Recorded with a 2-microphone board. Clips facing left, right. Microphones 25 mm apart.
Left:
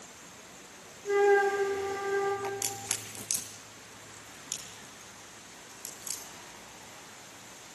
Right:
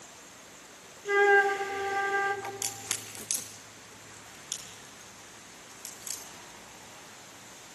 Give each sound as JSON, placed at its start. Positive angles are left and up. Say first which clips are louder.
{"t": 1.1, "sound": "a flute", "louder": "right 2 dB", "side_deg": -35, "distance_m": 2.5}
{"t": 2.4, "sound": "a crack", "louder": "left 1 dB", "side_deg": -10, "distance_m": 4.0}